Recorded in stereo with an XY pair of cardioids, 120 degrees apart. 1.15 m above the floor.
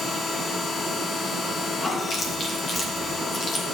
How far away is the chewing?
About 1.8 m.